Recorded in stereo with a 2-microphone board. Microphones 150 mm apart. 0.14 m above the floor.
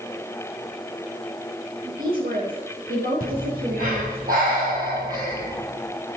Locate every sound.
1.8 s a woman speaking: 75° right (ahead or behind), 6 m; by 4.2 s 80° right, 6.5 m
3.2 s breathing: 70° right (ahead or behind), 7 m